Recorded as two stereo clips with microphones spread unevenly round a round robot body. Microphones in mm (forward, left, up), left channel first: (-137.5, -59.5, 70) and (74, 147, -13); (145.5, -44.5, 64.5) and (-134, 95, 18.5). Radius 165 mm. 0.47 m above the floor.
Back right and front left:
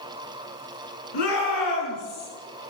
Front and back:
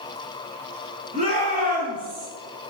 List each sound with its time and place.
1.1 s a shout: 135° right, 6 m; by 2.3 s 145° right, 5.5 m